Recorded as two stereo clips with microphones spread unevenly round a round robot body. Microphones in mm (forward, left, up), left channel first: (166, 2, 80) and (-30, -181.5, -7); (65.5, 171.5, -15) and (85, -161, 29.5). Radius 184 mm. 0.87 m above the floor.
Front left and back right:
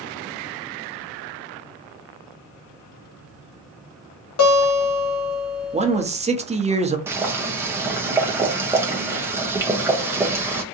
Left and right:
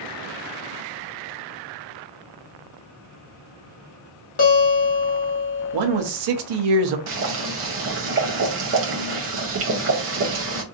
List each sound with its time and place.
4.4 s a guitar: 85° left, 1.3 m
5.7 s a man speaking: 75° right, 0.8 m
7.1 s boiling: 110° right, 0.7 m